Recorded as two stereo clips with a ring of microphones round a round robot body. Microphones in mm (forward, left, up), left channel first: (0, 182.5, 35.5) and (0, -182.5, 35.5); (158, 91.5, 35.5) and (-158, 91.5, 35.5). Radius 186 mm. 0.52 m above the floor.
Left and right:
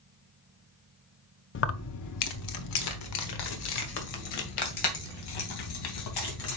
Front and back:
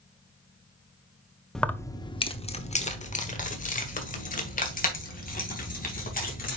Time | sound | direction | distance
1.6 | keys jangling | 90° left | 0.6 m